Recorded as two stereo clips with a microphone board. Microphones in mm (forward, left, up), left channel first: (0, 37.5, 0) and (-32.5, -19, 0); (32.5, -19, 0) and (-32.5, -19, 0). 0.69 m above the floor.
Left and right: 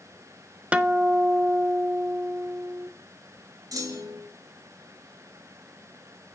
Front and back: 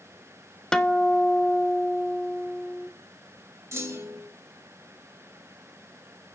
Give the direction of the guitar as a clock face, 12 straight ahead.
2 o'clock.